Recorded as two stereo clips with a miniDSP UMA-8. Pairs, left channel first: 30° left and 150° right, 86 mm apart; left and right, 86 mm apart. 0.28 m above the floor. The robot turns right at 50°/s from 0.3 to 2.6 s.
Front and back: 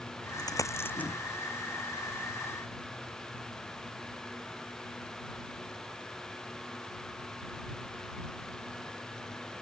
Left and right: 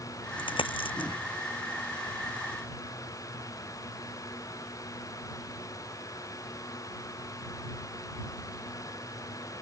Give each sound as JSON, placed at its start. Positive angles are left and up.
{"t": 0.4, "sound": "a dropped coin", "azimuth_deg": 70}